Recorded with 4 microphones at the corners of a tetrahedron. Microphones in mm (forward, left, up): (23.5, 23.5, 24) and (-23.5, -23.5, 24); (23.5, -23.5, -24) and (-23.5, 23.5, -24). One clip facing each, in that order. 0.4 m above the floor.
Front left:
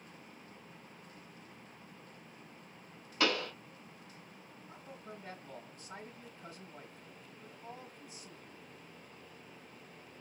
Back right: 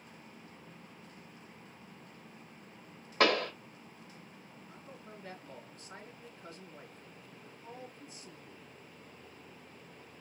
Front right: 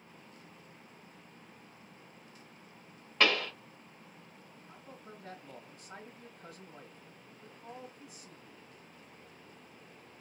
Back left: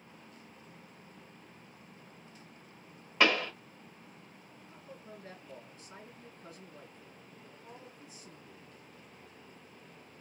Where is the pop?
140° right, 1.0 m.